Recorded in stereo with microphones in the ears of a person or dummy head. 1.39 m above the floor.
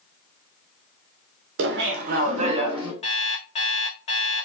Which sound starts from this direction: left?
An alarm clock, at 3.0 s.